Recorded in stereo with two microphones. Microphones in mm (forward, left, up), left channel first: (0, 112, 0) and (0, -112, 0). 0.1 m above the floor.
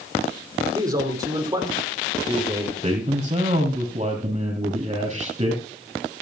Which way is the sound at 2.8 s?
30° right (ahead or behind).